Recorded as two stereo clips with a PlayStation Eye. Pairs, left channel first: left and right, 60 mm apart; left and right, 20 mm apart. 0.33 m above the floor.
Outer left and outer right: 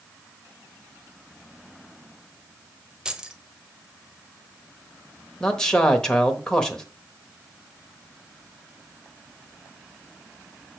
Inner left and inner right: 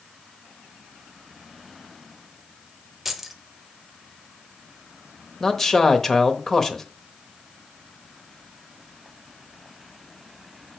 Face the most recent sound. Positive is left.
turn(degrees=10)  # may be behind; listen again after turning